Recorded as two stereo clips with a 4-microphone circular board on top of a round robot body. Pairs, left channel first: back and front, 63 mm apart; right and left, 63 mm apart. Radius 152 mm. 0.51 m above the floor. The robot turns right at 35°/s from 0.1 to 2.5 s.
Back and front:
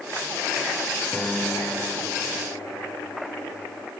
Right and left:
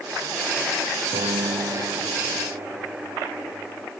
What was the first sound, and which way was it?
A piano, 100° left.